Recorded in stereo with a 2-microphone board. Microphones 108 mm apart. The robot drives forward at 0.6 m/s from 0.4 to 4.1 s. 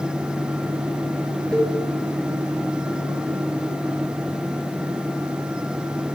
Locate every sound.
1.5 s a cowbell: 10° left (ahead or behind), 1.2 m